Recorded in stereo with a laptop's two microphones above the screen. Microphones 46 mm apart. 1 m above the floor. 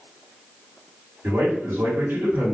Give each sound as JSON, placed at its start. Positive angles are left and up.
{"t": 1.2, "sound": "a man speaking", "side_deg": -65, "distance_m": 1.6}